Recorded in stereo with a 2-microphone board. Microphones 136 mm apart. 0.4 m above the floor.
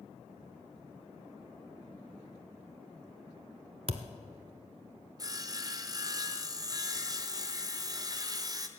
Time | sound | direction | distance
3.9 | a thud | 50° right (ahead or behind) | 0.8 m
5.2 | sawing | 30° right (ahead or behind) | 0.9 m